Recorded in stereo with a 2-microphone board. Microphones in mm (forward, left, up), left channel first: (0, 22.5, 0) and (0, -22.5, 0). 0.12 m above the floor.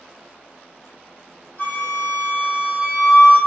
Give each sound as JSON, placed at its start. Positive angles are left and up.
{"t": 1.6, "sound": "a flute", "side_deg": 55, "distance_m": 1.5}